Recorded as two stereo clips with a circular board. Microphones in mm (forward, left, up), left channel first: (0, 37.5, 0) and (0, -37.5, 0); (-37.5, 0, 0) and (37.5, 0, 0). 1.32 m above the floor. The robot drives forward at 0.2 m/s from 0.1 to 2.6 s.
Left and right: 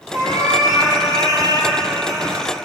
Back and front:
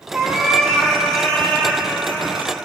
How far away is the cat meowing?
About 1.2 m.